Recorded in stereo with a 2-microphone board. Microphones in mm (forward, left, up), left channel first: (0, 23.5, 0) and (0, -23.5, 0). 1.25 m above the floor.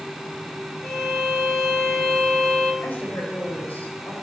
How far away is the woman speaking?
About 5.5 m.